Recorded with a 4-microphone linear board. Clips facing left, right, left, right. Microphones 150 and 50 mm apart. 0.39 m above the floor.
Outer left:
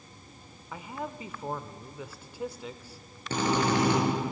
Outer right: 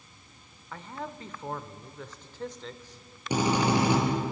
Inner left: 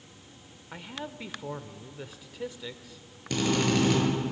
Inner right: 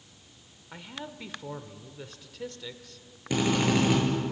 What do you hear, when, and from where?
0.7 s a man speaking: 10° left (ahead or behind), 0.8 m
3.3 s a drill: 15° right (ahead or behind), 7 m